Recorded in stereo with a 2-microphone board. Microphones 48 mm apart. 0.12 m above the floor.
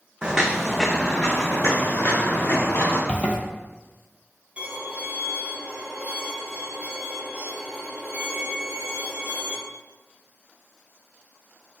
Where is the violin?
30° right (ahead or behind), 1.2 m.